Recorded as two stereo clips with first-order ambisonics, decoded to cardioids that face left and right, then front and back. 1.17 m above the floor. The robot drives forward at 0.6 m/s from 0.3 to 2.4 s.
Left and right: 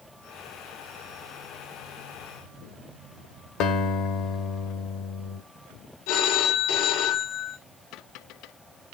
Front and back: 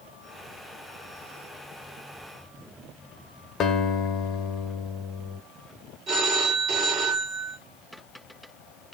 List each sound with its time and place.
3.6 s a guitar: 55° left, 1.6 m
6.1 s a phone ringing: 120° left, 2.5 m